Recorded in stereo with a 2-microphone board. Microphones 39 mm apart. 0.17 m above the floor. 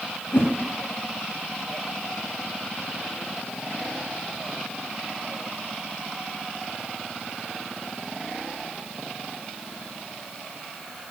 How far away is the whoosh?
About 2.5 m.